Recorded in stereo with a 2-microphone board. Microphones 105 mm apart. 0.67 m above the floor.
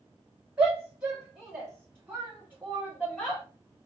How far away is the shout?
About 2.5 m.